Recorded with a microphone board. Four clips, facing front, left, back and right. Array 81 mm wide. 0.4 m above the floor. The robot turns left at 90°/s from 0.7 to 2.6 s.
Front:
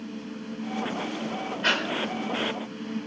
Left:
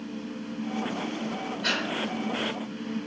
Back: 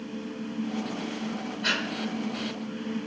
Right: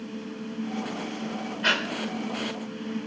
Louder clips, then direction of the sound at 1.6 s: Right 5 dB, front 3 dB; 45° right.